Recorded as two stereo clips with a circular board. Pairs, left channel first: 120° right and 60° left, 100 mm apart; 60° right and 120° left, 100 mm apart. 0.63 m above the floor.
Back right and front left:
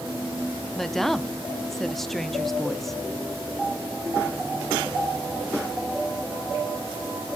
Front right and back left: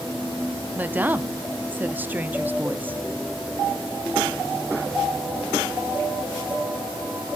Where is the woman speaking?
155° left, 0.5 m.